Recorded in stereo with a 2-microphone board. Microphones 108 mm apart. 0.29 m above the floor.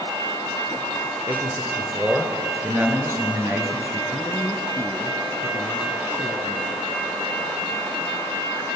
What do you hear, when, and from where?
1.3 s a man speaking: 30° right (ahead or behind), 3 m; by 4.0 s 20° right (ahead or behind), 5 m
4.1 s a man speaking: 25° left (ahead or behind), 4 m